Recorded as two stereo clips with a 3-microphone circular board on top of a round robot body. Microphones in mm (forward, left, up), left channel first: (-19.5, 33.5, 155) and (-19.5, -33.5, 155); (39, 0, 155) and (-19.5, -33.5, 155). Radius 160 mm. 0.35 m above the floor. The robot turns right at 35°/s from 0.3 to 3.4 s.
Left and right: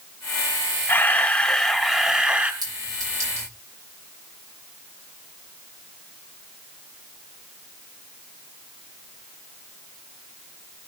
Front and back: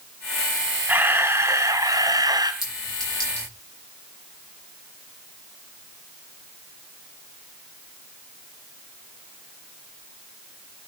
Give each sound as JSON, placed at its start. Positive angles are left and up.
{"t": 0.9, "sound": "a camera shutter", "azimuth_deg": 150, "distance_m": 2.5}
{"t": 2.6, "sound": "a clink", "azimuth_deg": -65, "distance_m": 5.5}